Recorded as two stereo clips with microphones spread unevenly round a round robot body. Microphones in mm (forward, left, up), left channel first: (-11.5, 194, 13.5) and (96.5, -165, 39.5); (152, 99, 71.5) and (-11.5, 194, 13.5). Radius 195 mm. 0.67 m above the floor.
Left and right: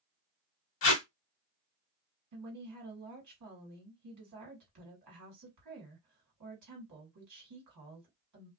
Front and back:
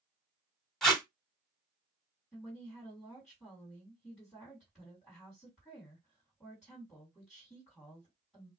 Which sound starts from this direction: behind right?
A woman speaking, at 2.3 s.